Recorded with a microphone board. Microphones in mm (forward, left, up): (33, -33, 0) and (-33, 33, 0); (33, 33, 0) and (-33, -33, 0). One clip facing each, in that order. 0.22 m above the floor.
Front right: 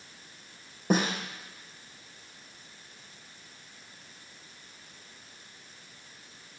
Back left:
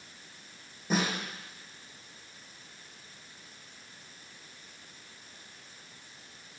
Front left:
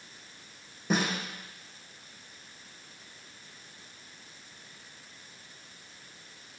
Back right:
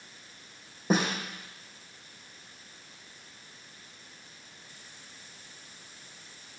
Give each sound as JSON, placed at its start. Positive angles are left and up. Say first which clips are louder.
{"t": 0.9, "sound": "a snare drum", "louder": "front right 3 dB, back right 2 dB", "azimuth_deg": -80, "distance_m": 4.0}